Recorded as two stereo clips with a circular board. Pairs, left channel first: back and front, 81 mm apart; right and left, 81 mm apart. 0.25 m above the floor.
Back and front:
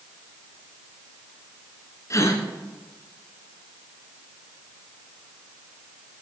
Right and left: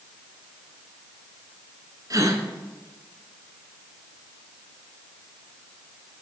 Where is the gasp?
130° left, 1.1 m.